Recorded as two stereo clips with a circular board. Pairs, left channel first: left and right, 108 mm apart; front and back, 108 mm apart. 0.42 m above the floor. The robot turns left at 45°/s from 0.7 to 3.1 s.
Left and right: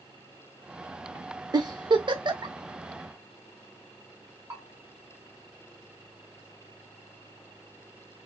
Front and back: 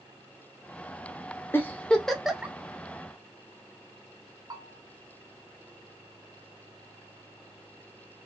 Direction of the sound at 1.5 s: 60° right.